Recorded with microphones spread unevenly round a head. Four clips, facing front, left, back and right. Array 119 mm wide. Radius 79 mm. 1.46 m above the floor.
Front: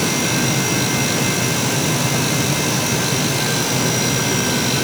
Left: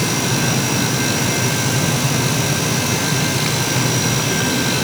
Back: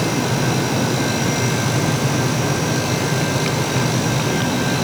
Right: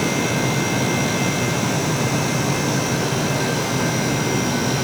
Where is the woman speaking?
No woman speaking in this recording.